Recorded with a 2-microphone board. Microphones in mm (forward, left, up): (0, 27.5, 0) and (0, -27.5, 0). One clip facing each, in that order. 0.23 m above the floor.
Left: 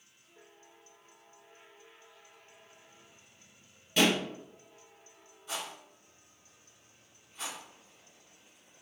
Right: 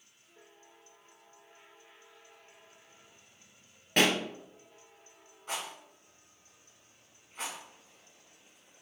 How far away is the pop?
About 1.1 m.